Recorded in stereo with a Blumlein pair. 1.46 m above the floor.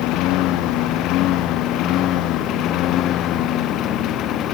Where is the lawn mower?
40° left; by 4.5 s 35° left.